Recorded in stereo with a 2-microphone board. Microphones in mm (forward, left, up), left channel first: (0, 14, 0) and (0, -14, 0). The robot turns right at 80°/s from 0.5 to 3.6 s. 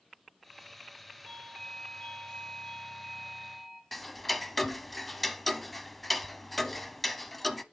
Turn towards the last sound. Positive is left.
turn(degrees=5)  # may be behind; listen again after turning